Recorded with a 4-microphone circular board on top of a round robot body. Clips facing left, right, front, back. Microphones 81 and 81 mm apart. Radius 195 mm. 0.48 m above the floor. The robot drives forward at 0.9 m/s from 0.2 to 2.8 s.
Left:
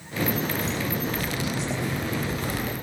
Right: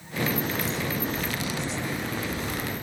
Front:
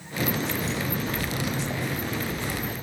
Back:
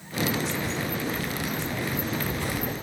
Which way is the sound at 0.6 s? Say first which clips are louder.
Left 1 dB, even; 10° right.